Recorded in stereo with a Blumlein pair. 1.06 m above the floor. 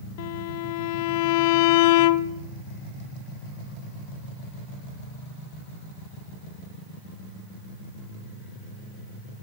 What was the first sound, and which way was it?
A violin, 50° left.